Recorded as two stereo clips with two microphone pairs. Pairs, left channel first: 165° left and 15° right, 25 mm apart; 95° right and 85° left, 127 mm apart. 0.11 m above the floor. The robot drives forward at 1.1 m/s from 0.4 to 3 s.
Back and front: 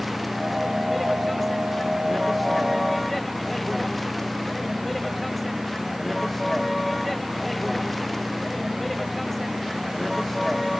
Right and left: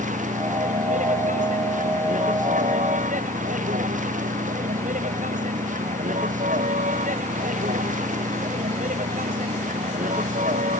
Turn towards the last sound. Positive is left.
turn(degrees=80)